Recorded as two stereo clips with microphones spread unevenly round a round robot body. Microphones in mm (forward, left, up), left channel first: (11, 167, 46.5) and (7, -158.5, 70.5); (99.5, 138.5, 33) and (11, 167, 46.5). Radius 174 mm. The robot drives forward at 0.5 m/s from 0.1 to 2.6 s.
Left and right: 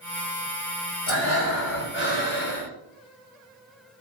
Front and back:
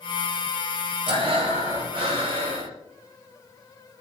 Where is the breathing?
140° left, 4.5 m; by 2.7 s 145° left, 5 m.